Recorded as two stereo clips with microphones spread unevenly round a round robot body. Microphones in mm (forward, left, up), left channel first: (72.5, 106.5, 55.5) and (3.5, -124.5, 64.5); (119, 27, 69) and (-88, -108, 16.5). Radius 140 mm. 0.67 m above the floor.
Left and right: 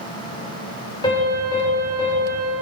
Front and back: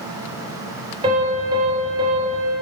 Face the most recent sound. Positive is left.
turn(degrees=145)